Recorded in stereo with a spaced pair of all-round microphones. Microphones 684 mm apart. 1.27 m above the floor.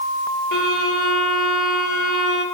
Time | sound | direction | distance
0.5 | a violin | 25° left (ahead or behind) | 4 m